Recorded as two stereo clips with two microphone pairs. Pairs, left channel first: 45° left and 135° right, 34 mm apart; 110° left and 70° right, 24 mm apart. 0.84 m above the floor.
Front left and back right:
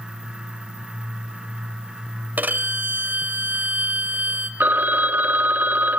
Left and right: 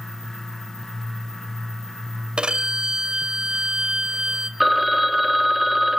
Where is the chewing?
No chewing in this recording.